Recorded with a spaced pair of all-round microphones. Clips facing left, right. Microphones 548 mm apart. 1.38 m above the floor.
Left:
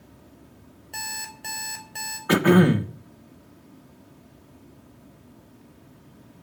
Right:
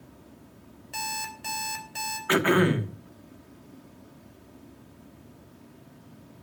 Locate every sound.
0.9 s an alarm clock: 30° right (ahead or behind), 4 m
2.3 s throat clearing: 60° left (ahead or behind), 1.4 m